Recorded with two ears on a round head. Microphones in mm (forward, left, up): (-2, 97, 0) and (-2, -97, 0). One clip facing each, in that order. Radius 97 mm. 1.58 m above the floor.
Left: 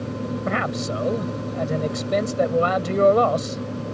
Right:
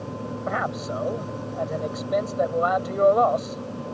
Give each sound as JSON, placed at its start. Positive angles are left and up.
{"t": 0.5, "sound": "a man speaking", "side_deg": 40}